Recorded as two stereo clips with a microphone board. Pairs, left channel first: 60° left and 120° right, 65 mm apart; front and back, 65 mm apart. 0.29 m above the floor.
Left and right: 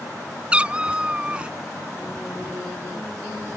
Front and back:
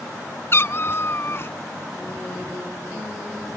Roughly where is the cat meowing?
Ahead right.